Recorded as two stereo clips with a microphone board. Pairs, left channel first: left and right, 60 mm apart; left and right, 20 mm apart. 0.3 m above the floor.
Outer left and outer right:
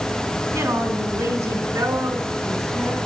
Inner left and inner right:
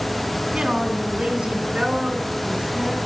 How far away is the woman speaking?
About 3 m.